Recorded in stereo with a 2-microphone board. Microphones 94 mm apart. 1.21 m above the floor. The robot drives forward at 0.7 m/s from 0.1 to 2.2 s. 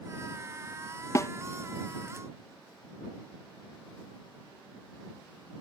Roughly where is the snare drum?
Left.